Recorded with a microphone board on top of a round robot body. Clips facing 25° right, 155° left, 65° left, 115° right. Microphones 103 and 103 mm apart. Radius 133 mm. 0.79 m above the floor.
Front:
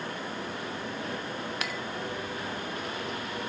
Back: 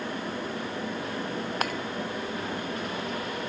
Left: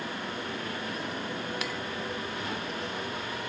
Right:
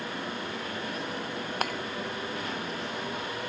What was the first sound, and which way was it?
Breaking glass, 155° right.